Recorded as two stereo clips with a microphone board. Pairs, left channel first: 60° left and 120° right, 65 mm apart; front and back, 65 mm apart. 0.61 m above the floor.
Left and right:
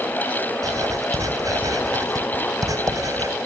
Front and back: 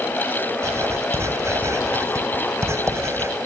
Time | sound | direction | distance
0.6 | writing | 140° right | 4 m